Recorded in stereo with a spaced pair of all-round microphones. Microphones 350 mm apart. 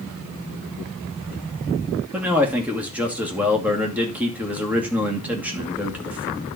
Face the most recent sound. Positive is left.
turn(degrees=-5)  # may be behind; listen again after turning